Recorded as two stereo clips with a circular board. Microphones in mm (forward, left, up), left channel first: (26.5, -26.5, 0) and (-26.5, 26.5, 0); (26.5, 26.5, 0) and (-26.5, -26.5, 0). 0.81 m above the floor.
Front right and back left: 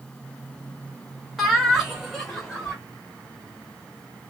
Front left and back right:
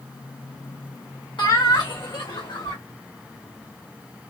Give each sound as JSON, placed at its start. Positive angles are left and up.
{"t": 1.4, "sound": "laughter", "azimuth_deg": 50, "distance_m": 2.5}